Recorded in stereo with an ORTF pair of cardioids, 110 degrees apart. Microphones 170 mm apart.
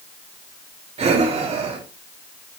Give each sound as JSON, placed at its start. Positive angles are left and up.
{"t": 1.0, "sound": "breathing", "azimuth_deg": -40, "distance_m": 2.5}